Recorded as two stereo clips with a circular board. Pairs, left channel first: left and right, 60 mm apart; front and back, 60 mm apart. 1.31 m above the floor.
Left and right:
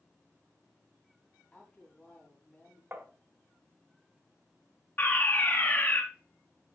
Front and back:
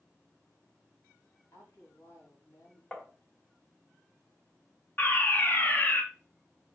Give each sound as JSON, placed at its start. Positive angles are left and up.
{"t": 1.5, "sound": "a woman speaking", "azimuth_deg": 25, "distance_m": 4.0}
{"t": 2.9, "sound": "tapping", "azimuth_deg": -65, "distance_m": 1.3}
{"t": 5.0, "sound": "a fire alarm", "azimuth_deg": 45, "distance_m": 1.1}